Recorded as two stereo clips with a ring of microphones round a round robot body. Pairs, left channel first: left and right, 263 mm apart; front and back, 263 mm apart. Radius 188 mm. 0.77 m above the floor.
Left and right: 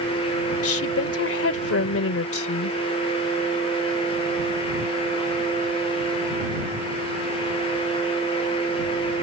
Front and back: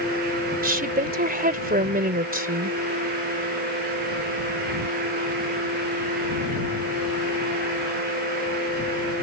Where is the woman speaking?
125° left.